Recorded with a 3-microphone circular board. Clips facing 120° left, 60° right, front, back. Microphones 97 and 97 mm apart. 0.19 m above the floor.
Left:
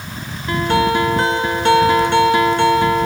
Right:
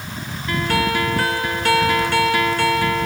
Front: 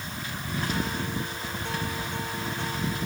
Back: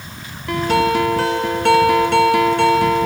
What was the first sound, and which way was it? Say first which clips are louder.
A guitar: left 5 dB, back 15 dB; 175° right.